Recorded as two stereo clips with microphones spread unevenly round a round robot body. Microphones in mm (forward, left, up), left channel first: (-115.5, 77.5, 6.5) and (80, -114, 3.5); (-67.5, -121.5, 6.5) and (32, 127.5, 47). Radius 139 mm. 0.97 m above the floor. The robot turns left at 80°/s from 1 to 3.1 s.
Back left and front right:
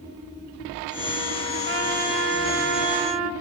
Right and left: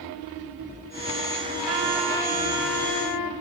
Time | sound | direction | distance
1.6 | a trumpet | 10° left | 2 m